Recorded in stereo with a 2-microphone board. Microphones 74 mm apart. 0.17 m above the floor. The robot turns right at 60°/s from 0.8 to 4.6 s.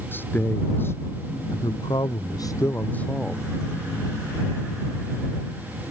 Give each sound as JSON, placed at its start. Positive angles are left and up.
{"t": 0.1, "sound": "a man speaking", "azimuth_deg": 30}